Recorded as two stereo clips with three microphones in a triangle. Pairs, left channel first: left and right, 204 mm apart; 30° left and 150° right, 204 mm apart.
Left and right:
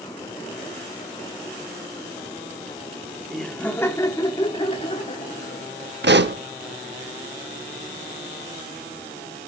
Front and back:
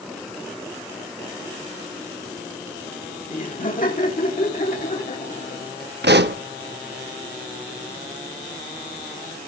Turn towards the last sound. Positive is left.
turn(degrees=-120)